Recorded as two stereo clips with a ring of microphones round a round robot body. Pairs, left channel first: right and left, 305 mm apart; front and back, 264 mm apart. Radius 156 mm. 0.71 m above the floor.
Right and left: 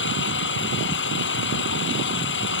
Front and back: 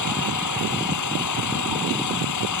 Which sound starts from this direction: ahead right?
An engine running, at 0.0 s.